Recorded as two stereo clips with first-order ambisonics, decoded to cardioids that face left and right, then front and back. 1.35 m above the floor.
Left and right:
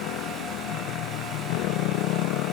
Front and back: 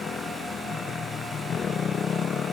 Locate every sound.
0.0 s a motorcycle: 65° left